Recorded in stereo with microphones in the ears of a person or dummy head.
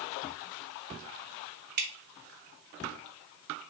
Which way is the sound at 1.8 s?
55° right (ahead or behind).